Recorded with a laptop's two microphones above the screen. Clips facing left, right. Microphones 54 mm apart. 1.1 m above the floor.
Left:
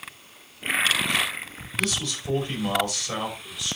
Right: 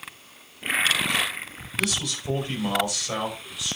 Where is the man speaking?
10° right (ahead or behind), 5.5 m.